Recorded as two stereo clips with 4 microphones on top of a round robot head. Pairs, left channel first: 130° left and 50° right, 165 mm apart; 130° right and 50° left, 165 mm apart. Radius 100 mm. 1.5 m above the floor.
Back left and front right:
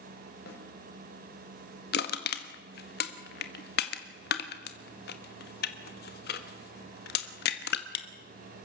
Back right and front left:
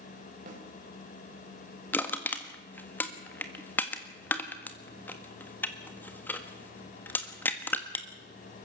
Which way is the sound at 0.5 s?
95° left.